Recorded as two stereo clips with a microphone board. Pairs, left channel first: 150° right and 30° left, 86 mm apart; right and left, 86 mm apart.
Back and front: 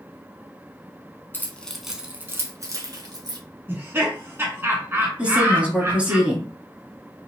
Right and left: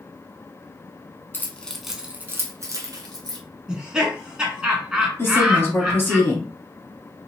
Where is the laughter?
20° left, 1.1 m.